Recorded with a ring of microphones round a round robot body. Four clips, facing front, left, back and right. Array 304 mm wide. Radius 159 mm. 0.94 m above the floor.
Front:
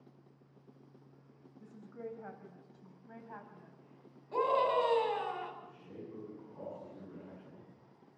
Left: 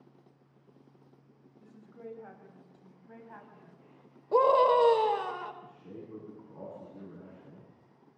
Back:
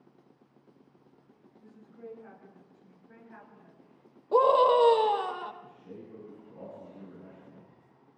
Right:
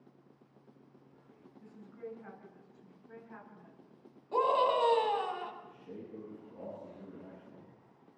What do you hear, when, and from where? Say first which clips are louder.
1.6 s a woman speaking: right 1 dB, front 2 dB; 15° left, 5 m; by 3.8 s 30° left, 7 m
4.3 s a scream: left 6 dB, back 9 dB; 145° left, 4.5 m
5.6 s a man speaking: left 1 dB, back 2 dB; 85° left, 9.5 m